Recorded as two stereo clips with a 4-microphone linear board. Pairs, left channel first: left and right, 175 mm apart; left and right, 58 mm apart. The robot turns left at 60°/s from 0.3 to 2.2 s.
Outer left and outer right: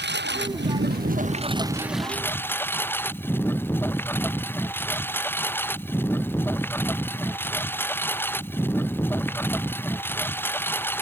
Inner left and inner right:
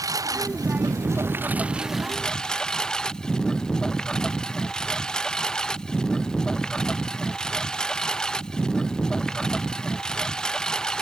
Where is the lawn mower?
80° right; by 11.0 s 170° left.